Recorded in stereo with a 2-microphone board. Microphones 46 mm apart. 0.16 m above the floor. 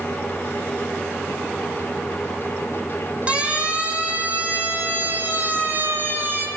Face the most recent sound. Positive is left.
turn(degrees=-50)  # may be behind; listen again after turning